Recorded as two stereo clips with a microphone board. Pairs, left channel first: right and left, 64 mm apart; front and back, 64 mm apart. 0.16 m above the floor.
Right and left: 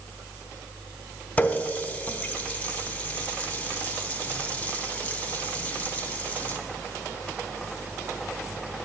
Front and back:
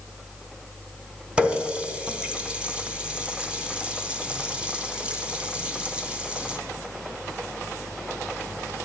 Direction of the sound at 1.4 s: 125° right.